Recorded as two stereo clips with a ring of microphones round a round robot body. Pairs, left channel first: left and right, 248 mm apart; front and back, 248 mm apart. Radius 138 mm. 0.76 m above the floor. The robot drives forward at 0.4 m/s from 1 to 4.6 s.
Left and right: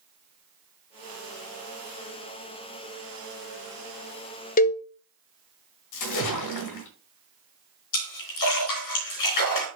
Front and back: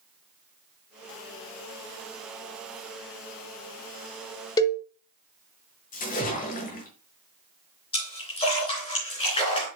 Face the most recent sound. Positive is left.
turn(degrees=70)